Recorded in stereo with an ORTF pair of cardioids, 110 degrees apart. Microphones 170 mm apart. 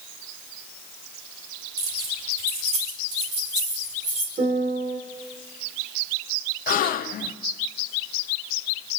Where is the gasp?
55° left, 0.6 m.